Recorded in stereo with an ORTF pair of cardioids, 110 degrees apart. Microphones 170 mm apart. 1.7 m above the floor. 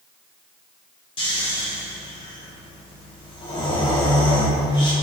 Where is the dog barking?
No dog barking in this recording.